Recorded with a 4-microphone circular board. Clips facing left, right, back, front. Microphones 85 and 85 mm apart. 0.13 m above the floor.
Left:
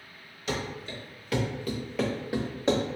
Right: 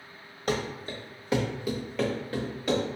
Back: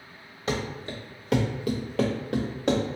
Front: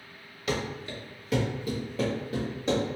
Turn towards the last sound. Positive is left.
turn(degrees=150)